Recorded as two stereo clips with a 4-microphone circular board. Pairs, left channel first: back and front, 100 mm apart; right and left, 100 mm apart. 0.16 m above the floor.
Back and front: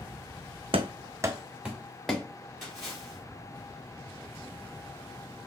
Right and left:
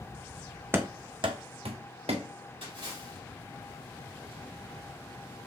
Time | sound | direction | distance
0.7 | running footsteps | 25° left | 0.5 m
2.6 | a splash | 90° left | 3.5 m